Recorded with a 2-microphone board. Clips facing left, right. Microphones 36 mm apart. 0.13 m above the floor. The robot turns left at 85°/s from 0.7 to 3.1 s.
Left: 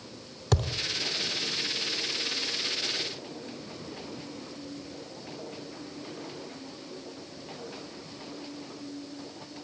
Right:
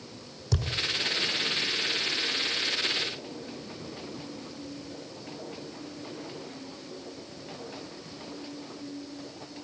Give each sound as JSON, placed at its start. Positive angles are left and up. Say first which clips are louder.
{"t": 0.5, "sound": "a thud", "louder": "left 4 dB", "side_deg": 70, "distance_m": 2.5}